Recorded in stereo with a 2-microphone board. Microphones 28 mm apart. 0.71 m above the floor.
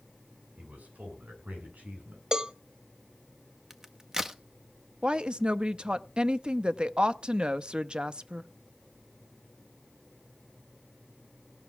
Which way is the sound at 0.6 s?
65° right (ahead or behind).